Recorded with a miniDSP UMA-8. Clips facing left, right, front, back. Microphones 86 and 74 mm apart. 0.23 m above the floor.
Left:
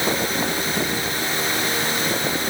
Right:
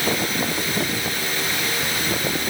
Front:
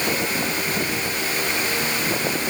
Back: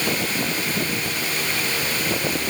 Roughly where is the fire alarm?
No fire alarm in this recording.